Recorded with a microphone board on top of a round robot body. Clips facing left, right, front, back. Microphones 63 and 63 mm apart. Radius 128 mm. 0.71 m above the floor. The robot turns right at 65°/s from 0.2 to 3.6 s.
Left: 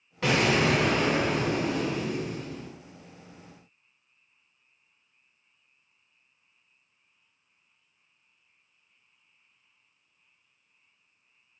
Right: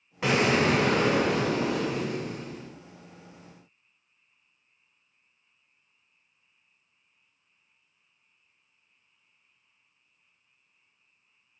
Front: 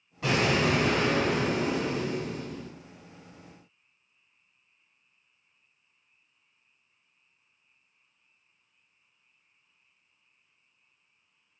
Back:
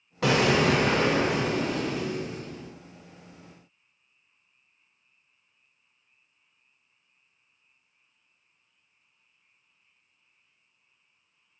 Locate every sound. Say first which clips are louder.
0.2 s an explosion: right 1 dB, back 3 dB; 170° right, 0.7 m; by 2.7 s 10° right, 0.7 m